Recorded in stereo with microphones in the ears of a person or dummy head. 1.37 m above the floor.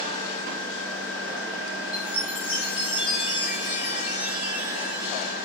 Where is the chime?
15° right (ahead or behind), 4 m.